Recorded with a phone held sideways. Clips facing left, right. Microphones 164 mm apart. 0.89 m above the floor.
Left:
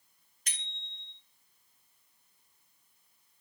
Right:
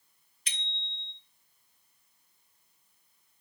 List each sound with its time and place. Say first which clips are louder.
0.5 s a bicycle bell: right 4 dB; 45° left (ahead or behind), 3 m